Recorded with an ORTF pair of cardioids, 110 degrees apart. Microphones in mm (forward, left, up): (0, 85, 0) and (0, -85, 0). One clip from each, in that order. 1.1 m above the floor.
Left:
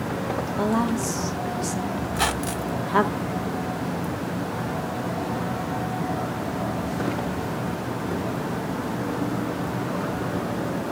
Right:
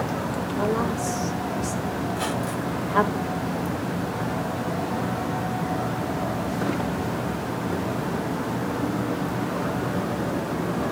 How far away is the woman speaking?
About 2.0 m.